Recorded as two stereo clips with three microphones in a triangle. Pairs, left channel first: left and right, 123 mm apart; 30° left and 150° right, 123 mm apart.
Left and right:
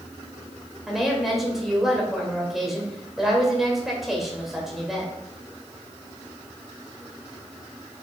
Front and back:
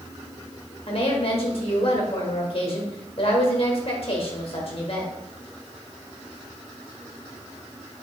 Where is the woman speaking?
Straight ahead, 1.8 m.